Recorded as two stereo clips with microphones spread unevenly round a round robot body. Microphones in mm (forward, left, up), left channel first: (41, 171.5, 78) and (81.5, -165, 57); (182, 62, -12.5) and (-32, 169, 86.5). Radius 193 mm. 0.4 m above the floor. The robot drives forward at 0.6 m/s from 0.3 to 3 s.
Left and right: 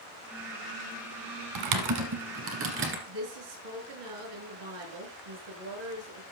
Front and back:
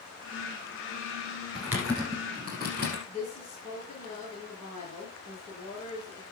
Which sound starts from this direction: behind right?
Typing on a keyboard, at 1.6 s.